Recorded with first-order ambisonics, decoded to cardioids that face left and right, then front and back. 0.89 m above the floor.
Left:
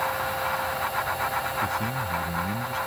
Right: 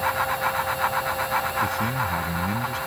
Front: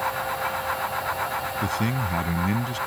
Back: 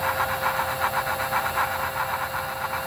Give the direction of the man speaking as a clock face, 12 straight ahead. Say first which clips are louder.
Right 3 dB, back 2 dB; 12 o'clock.